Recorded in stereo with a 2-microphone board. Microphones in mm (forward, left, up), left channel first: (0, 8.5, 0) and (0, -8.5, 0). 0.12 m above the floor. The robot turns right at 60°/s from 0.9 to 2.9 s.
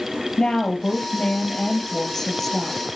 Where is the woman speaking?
70° left, 3 m; by 2.8 s 175° right, 3 m.